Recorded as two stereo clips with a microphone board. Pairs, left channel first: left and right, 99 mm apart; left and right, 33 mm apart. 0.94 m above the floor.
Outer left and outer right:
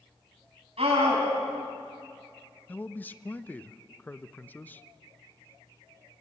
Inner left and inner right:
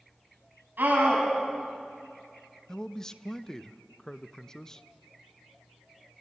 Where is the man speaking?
20° left (ahead or behind), 0.6 m.